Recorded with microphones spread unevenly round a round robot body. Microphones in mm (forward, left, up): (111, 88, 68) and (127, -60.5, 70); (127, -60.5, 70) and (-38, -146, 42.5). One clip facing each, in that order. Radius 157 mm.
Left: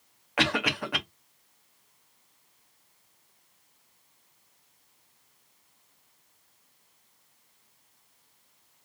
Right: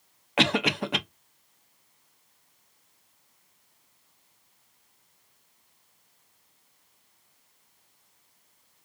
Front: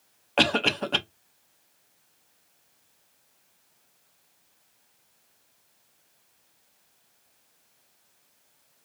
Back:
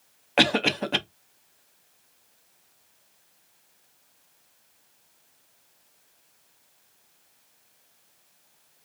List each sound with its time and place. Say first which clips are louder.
0.4 s a cough: right 3 dB, back 2 dB; 105° right, 0.6 m